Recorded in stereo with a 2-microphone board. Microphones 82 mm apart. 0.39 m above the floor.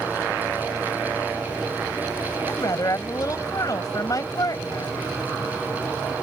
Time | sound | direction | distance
2.5 | a woman speaking | 50° left (ahead or behind) | ?